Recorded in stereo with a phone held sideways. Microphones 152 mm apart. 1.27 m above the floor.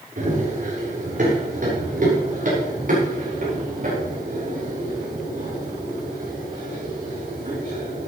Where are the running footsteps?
60° right (ahead or behind), 7.5 m.